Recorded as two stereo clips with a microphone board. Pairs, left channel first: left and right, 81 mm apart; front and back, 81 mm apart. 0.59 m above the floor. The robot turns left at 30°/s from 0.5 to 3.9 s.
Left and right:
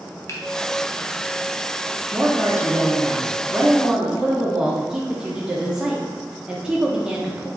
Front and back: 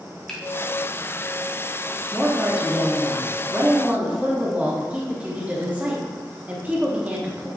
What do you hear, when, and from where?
0.3 s a finger snap: 75° left, 0.7 m
2.1 s a woman speaking: 100° right, 0.7 m; by 7.5 s 155° right, 0.7 m